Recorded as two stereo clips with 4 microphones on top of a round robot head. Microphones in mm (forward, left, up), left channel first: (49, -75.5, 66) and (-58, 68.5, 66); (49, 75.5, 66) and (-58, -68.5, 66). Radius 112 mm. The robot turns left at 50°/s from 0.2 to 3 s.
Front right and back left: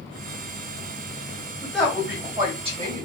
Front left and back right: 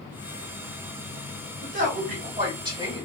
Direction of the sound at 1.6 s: 130° right.